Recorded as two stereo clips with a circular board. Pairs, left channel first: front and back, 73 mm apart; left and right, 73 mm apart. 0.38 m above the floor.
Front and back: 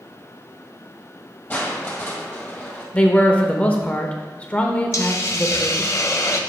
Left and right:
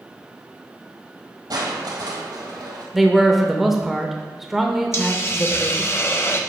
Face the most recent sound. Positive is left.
turn(degrees=40)